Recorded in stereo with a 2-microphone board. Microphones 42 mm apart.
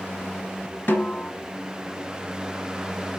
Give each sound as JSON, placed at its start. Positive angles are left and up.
{"t": 0.9, "sound": "a snare drum", "side_deg": 50, "distance_m": 0.9}